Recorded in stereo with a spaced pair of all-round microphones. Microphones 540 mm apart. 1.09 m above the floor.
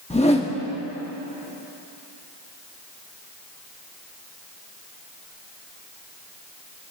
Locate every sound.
0.1 s a whoosh: 10° left (ahead or behind), 1.0 m